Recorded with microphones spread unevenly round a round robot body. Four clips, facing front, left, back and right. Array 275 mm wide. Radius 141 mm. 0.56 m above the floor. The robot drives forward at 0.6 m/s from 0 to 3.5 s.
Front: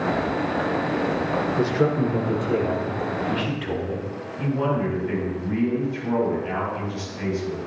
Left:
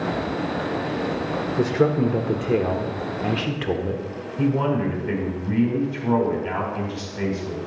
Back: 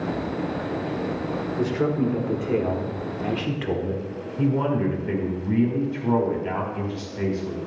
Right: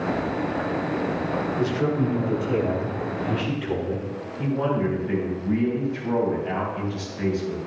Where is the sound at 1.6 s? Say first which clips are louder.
Left 6 dB, even; 60° left, 1.7 m; by 4.0 s 105° left, 1.6 m.